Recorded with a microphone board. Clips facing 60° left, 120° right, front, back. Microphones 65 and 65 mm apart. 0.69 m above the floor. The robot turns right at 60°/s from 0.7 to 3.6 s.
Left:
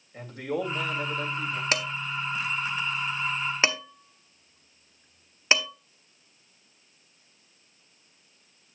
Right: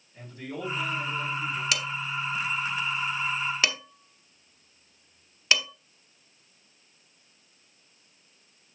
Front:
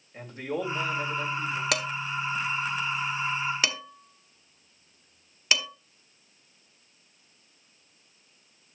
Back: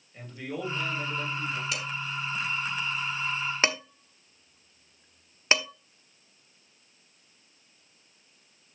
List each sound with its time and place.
0.1 s a man speaking: 55° left, 3 m; by 1.6 s 110° left, 3 m
1.7 s dishes clattering: 10° left, 1.1 m; by 5.7 s 120° left, 1.1 m